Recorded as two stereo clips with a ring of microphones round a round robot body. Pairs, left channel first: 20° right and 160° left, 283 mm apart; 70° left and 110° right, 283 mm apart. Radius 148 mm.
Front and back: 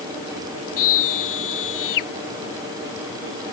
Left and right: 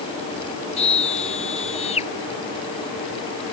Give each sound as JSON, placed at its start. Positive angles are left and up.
{"t": 0.8, "sound": "a scream", "azimuth_deg": 0}